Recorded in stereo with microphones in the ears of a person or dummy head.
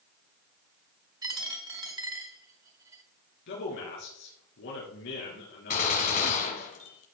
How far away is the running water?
No running water in this recording.